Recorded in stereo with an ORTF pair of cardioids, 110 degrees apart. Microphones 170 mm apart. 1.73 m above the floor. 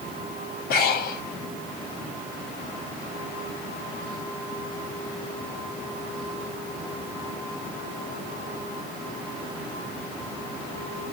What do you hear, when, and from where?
0.7 s breathing: 60° left, 1.0 m